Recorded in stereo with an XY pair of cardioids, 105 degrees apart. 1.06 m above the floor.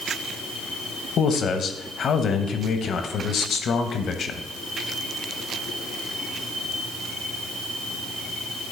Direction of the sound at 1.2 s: 55° left.